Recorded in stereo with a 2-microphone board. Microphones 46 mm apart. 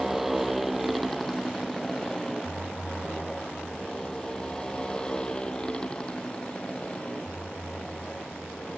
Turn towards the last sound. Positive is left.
turn(degrees=25)  # may be behind; listen again after turning